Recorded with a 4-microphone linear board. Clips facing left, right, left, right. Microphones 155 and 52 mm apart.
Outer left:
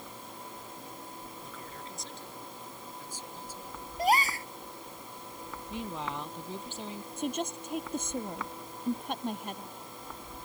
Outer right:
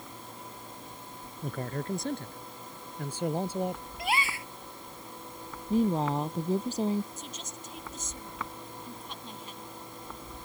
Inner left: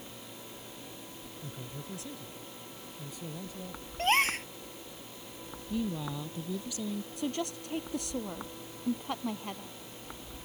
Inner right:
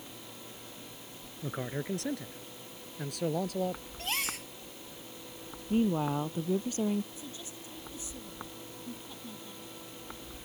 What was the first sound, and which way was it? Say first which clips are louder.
A man speaking: outer right 10 dB, inner right 10 dB; 60° right (ahead or behind).